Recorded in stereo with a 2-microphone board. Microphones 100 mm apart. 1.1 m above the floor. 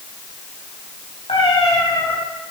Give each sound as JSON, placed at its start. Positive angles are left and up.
{"t": 1.3, "sound": "a cat meowing", "side_deg": 80, "distance_m": 4.5}